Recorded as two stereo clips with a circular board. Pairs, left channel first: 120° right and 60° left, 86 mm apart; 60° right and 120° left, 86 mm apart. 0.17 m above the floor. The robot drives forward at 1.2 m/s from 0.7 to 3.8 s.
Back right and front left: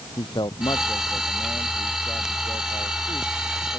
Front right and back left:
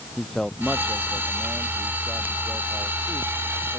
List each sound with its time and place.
0.2 s a man speaking: 145° right; by 3.8 s 160° right